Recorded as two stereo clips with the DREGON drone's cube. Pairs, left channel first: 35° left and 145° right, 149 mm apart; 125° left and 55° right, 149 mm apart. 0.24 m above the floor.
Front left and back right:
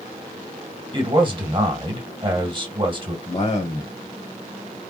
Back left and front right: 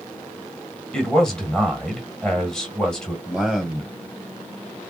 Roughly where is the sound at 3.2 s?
Ahead left.